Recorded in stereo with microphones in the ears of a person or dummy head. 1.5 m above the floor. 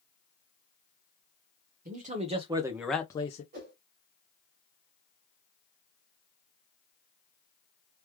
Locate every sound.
1.9 s a man speaking: 40° right (ahead or behind), 1.4 m; by 3.4 s 40° left (ahead or behind), 0.8 m
3.5 s a whoosh: 50° right (ahead or behind), 2.0 m